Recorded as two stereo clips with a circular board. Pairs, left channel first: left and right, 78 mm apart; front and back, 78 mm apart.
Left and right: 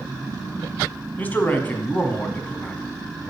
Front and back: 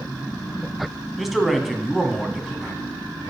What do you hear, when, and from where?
1.2 s a man speaking: 95° left, 1.3 m